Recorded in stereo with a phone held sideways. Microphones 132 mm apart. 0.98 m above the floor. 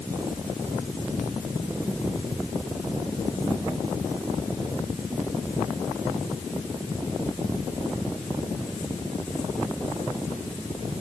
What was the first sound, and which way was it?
Only background noise.